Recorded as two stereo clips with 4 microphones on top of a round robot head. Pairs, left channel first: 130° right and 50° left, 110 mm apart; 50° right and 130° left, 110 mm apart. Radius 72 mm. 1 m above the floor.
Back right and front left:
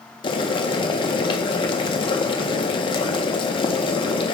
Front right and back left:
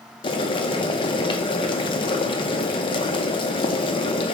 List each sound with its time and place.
0.2 s boiling: 90° right, 0.6 m